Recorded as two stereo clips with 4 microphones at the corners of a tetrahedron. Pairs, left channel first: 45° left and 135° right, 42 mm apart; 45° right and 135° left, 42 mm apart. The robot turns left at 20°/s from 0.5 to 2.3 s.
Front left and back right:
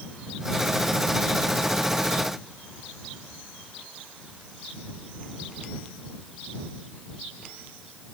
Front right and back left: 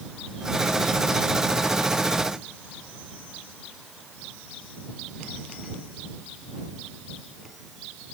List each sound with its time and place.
Only background noise.